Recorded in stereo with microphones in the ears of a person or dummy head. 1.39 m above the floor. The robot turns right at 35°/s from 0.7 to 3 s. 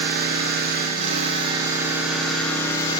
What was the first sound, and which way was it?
An engine running, 55° right.